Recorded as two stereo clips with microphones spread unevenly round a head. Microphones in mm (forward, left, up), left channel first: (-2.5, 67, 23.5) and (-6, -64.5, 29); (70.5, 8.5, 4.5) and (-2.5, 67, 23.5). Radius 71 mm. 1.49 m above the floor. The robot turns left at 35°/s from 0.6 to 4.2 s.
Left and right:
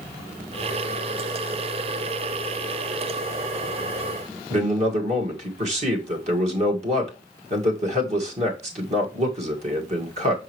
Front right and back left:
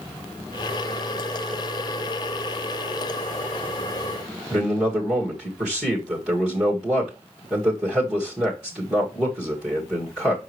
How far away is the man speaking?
About 2 m.